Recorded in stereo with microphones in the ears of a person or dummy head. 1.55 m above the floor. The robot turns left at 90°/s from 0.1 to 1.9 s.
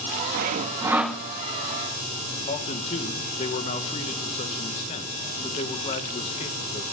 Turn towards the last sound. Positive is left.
turn(degrees=35)  # may be behind; listen again after turning